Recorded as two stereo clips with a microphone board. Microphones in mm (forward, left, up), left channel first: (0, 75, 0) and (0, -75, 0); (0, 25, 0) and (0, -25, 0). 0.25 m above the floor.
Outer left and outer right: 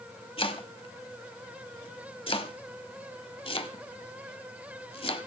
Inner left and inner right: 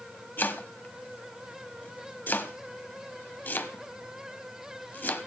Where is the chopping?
40° left (ahead or behind), 1.2 m.